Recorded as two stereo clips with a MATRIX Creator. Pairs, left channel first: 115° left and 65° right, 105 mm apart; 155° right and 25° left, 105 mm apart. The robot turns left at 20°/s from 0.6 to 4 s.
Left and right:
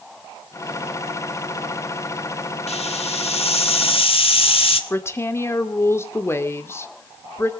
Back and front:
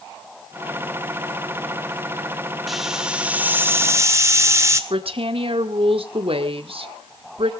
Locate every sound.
2.7 s a hiss: 110° left, 1.6 m; by 4.8 s 85° left, 1.6 m
4.9 s a woman speaking: 45° left, 1.8 m